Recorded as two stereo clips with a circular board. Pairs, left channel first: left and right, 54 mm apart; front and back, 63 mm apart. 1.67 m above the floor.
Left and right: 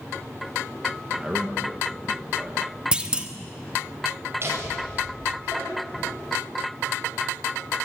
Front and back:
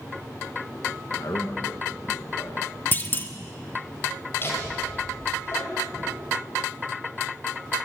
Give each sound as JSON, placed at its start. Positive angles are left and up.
{"t": 1.2, "sound": "a man speaking", "azimuth_deg": -20, "distance_m": 1.6}
{"t": 2.9, "sound": "a clunk", "azimuth_deg": -30, "distance_m": 1.4}
{"t": 4.4, "sound": "laughter", "azimuth_deg": -50, "distance_m": 8.5}